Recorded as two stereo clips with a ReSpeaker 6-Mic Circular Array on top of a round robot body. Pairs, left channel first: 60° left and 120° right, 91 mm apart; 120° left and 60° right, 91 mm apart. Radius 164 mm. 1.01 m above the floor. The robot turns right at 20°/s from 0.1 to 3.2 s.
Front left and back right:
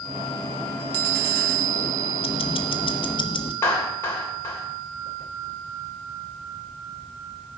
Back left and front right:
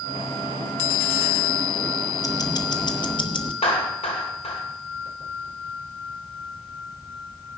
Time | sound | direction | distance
2.2 | ticking | 70° left | 1.1 m
3.6 | a clap | 125° left | 3 m